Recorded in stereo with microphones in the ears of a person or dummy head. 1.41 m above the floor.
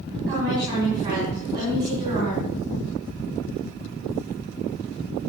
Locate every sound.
0.3 s a woman speaking: 45° right (ahead or behind), 6.5 m; by 2.5 s 40° right (ahead or behind), 4.5 m